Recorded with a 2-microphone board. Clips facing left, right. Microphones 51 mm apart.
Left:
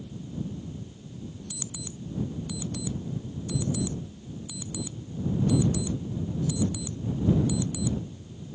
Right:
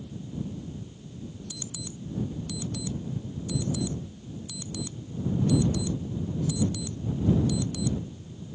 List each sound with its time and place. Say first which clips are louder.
1.5 s an alarm clock: even; 10° left (ahead or behind)